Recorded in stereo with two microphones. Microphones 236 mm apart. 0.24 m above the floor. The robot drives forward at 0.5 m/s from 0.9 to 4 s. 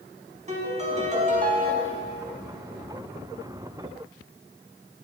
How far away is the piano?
About 1.0 m.